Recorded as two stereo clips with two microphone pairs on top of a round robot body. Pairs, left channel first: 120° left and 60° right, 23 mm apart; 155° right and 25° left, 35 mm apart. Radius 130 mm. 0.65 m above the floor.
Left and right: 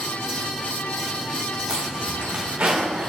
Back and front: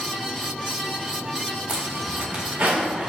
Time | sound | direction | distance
1.7 | a zipper | 15° right | 2 m